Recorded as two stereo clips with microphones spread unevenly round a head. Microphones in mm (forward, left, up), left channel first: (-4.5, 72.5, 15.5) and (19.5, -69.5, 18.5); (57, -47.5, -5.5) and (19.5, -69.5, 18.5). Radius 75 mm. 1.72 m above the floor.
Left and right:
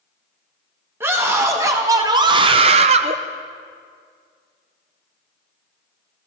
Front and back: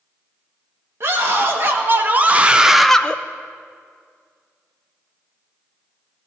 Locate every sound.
1.0 s a scream: 155° right, 2 m; by 3.2 s 55° right, 0.7 m